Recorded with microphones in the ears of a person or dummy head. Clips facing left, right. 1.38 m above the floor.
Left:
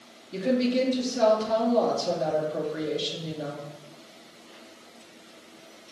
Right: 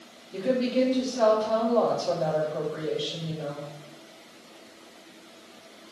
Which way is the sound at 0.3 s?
35° left (ahead or behind).